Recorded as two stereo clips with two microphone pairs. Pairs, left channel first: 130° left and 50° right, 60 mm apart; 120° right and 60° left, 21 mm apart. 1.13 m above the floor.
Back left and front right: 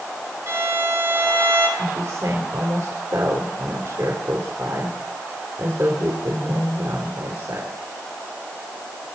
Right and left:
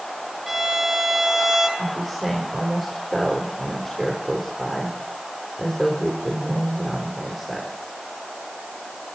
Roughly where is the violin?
Ahead.